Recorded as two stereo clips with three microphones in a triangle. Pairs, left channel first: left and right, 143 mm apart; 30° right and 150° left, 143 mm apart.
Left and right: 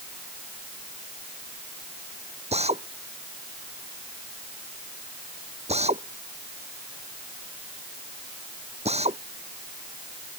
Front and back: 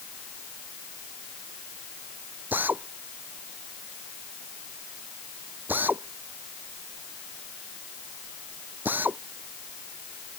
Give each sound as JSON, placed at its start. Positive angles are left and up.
{"t": 2.5, "sound": "a drill", "azimuth_deg": -130}